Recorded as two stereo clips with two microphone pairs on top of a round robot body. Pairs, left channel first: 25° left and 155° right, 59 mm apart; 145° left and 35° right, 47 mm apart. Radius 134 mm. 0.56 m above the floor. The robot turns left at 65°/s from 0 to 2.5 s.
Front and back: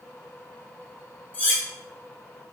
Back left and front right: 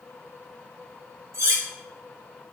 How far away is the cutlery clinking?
About 0.9 m.